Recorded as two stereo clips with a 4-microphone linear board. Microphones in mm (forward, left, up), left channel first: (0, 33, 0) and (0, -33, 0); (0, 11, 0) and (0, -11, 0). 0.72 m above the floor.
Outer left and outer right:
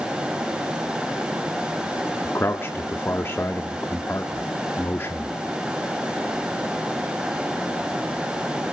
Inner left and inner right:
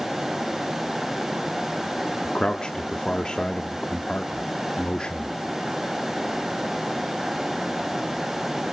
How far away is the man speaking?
About 1.5 m.